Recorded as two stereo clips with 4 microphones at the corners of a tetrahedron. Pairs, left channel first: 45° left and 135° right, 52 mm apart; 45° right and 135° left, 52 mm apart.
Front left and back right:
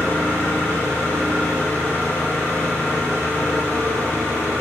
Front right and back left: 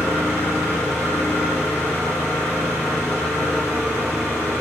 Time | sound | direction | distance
0.0 | an engine running | 110° left | 1.6 m